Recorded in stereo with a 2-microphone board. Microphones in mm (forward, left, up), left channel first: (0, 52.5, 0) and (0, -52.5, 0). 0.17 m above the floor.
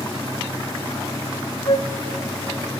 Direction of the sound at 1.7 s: 55° left (ahead or behind).